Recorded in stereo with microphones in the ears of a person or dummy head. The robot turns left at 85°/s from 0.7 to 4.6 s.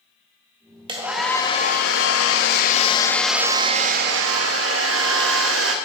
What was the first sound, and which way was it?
A hair dryer, 160° right.